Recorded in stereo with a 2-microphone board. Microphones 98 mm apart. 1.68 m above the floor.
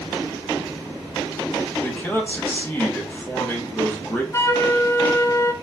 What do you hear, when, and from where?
1.8 s a man speaking: 20° left (ahead or behind), 1.5 m
4.3 s a flute: 30° left (ahead or behind), 0.5 m